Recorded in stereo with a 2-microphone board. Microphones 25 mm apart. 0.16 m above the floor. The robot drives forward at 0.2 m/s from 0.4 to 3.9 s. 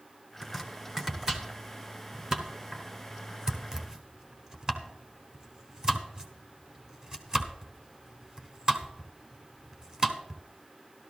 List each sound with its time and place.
0.4 s chopping: 15° right (ahead or behind), 1.4 m; by 10.4 s 25° right (ahead or behind), 1.0 m